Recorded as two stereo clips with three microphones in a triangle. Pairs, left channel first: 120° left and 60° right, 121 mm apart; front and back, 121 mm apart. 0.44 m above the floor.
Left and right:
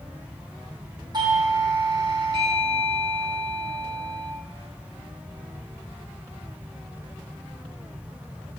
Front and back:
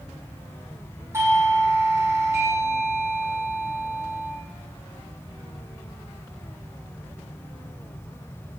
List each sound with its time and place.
1.1 s a doorbell: 115° right, 4.5 m